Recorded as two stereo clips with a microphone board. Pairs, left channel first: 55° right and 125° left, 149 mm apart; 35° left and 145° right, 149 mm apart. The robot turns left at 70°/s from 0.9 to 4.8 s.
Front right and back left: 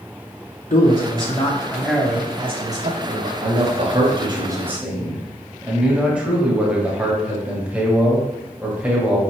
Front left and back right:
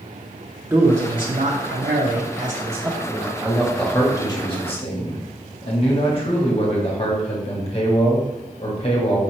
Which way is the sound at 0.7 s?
80° right.